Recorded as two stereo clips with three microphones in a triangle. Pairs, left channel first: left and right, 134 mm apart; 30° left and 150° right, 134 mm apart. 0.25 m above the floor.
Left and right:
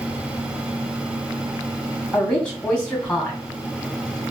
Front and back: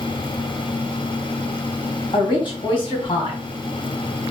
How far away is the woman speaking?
About 1.9 m.